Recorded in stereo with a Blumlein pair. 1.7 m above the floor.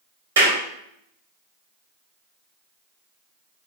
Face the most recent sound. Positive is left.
turn(degrees=-65)